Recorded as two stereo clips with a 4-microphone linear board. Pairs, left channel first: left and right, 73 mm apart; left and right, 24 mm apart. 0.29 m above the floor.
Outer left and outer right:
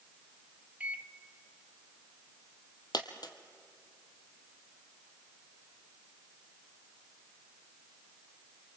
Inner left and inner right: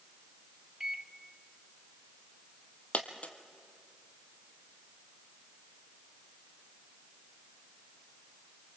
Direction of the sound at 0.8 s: 20° right (ahead or behind).